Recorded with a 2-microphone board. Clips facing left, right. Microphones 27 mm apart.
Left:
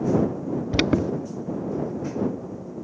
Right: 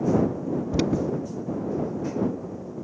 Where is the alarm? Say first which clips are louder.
Left 4 dB; 50° left (ahead or behind).